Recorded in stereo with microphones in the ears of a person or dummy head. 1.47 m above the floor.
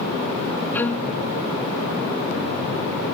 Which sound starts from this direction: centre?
A violin, at 0.7 s.